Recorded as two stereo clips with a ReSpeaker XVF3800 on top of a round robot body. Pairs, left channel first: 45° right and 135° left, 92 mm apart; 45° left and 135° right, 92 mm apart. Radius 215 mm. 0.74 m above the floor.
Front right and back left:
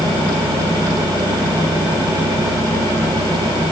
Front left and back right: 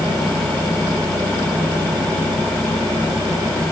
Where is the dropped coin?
I don't hear a dropped coin.